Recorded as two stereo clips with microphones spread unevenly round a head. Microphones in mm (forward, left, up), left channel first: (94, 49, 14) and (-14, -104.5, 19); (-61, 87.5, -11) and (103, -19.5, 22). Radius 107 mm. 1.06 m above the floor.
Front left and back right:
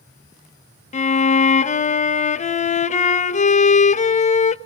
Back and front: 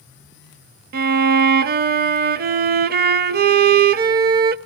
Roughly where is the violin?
Ahead.